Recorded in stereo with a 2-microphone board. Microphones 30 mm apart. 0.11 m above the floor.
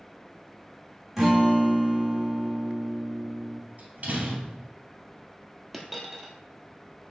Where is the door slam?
55° right (ahead or behind), 2 m.